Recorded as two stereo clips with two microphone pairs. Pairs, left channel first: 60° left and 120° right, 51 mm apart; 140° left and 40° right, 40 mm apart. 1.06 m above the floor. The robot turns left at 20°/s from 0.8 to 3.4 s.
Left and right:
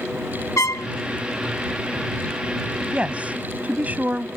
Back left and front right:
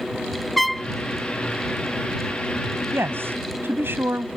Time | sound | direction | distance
0.6 | a trumpet | 55° left | ?
2.9 | a woman speaking | 50° right | ?